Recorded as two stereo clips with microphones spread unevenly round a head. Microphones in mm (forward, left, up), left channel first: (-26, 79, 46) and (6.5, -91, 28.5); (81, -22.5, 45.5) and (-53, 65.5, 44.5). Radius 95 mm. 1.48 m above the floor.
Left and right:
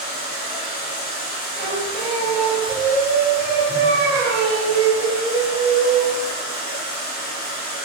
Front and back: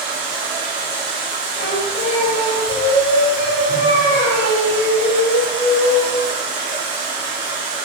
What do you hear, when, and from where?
0.0 s running water: 130° left, 1.8 m
1.6 s singing: 25° right, 1.6 m